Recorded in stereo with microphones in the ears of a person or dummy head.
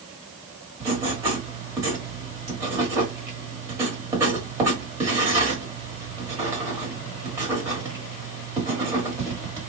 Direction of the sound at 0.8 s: 20° right (ahead or behind).